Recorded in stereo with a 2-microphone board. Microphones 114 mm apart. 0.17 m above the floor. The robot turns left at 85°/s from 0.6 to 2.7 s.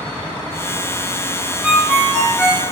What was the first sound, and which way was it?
A ringtone, 10° right (ahead or behind).